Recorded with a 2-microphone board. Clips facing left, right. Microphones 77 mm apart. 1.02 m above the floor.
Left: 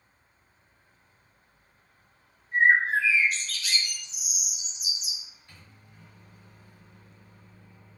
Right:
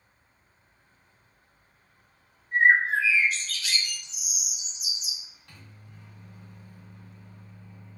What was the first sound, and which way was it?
A bird, 75° right (ahead or behind).